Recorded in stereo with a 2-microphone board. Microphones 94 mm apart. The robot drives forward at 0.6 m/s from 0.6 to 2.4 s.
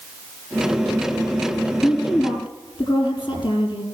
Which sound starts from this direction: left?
A woman speaking, at 1.8 s.